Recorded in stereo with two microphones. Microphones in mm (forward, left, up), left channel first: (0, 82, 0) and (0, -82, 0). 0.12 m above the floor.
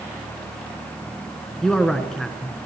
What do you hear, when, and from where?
1.6 s a man speaking: 5° left (ahead or behind), 1.2 m